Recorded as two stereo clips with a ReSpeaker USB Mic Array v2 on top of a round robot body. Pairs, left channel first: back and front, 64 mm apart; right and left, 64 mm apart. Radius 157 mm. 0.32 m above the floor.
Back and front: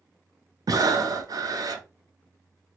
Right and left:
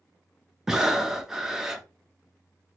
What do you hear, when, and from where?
0.7 s breathing: 10° left, 0.6 m